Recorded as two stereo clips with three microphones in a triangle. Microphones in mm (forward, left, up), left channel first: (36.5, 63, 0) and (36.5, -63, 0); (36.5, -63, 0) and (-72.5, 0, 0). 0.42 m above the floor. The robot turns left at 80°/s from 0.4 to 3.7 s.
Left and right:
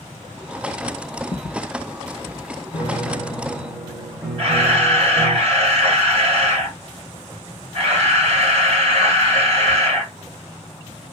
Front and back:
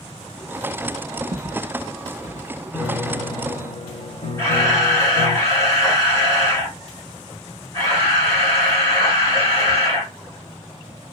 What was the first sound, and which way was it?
Footsteps, 90° left.